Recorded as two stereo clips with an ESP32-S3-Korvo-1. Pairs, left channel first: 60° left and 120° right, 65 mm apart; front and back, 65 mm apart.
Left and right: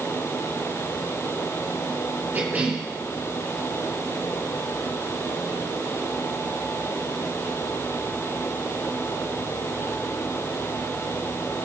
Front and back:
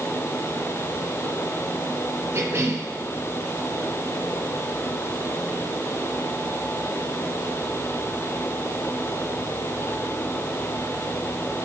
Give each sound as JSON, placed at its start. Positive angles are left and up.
{"t": 2.3, "sound": "a cough", "azimuth_deg": -170, "distance_m": 2.5}